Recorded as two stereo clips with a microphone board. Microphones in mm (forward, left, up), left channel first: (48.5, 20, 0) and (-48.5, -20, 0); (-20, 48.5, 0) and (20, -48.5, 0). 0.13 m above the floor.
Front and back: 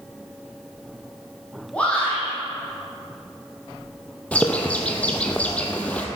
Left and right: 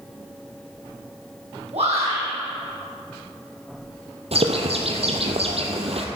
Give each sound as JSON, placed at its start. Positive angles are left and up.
{"t": 1.7, "sound": "a shout", "azimuth_deg": -55, "distance_m": 5.0}
{"t": 4.3, "sound": "a bird", "azimuth_deg": -55, "distance_m": 1.4}